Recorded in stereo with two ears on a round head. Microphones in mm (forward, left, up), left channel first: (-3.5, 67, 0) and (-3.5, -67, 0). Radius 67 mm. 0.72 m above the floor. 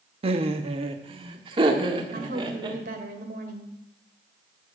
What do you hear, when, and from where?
0.2 s laughter: 40° right (ahead or behind), 0.9 m; by 2.8 s 30° right (ahead or behind), 2.5 m
2.1 s a woman speaking: 60° right (ahead or behind), 2.5 m